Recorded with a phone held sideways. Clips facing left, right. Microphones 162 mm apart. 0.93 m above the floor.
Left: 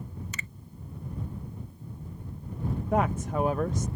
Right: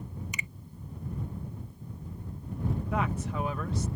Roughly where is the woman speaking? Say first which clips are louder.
Left 8 dB; left.